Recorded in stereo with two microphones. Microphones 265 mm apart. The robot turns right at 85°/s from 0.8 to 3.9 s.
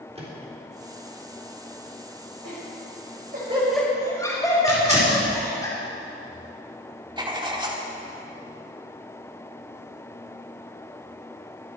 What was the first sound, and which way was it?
A microwave, 25° right (ahead or behind).